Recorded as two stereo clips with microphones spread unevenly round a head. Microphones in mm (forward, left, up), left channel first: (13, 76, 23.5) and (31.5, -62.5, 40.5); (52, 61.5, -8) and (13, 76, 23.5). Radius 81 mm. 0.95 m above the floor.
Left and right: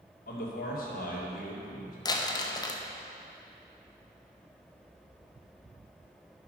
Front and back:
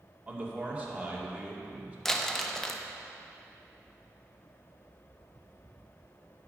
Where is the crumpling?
40° left, 0.9 m.